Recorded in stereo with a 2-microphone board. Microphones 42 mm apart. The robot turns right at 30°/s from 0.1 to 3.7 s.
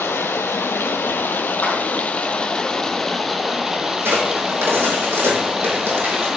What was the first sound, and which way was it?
Running water, 85° left.